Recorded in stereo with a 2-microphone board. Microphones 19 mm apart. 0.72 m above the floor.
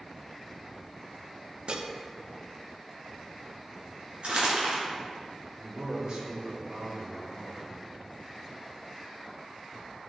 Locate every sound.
1.7 s dishes clattering: 45° right (ahead or behind), 0.6 m
4.2 s crumpling: 85° right, 3 m
5.6 s a man speaking: 45° right (ahead or behind), 3 m